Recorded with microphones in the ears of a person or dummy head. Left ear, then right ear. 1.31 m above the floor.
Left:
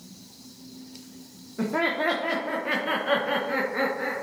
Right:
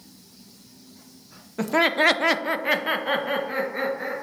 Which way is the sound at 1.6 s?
55° right (ahead or behind).